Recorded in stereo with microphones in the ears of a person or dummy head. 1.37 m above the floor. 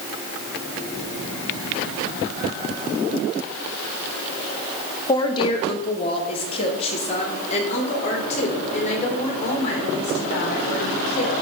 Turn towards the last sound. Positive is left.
turn(degrees=45)  # may be behind; listen again after turning